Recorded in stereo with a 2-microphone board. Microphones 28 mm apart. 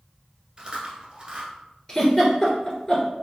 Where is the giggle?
15° left (ahead or behind), 1.5 m.